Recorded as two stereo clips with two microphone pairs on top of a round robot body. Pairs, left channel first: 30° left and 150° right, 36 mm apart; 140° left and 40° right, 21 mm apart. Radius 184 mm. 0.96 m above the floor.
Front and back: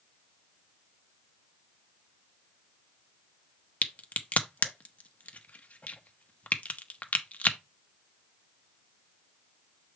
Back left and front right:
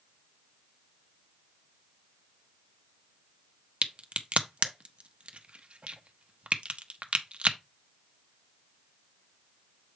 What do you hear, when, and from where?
3.8 s a crack: 15° right, 1.0 m